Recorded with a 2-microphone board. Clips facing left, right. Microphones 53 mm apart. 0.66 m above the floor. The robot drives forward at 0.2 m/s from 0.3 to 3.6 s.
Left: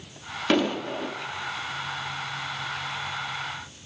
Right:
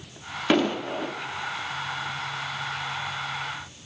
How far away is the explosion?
About 0.7 m.